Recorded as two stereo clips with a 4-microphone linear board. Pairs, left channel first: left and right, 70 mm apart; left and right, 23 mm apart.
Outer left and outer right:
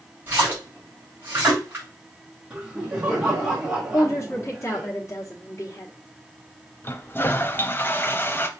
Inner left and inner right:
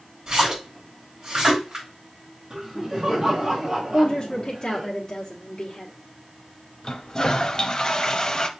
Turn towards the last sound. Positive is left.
turn(degrees=30)  # may be behind; listen again after turning